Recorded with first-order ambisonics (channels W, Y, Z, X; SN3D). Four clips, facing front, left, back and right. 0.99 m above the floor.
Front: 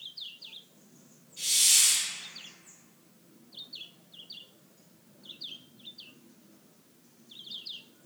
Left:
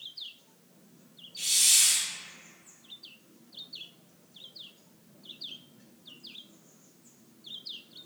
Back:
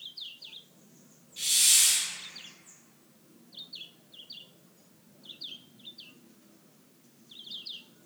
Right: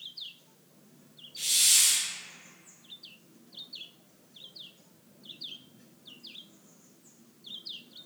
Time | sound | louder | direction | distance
1.4 | a hiss | even, even | 150° right | 1.8 m